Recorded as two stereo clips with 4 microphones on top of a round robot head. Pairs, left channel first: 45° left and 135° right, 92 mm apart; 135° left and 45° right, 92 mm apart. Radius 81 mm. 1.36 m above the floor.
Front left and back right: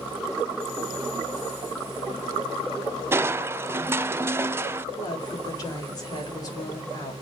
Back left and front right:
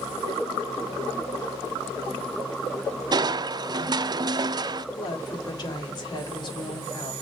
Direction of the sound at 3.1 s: 75° right.